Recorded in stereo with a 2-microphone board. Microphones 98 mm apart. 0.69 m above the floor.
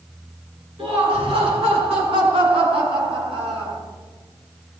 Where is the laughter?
85° right, 8 m; by 3.8 s 75° right (ahead or behind), 4 m.